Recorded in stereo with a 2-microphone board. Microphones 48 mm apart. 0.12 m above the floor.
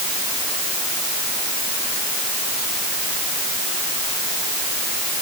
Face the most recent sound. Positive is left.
No sound to turn to.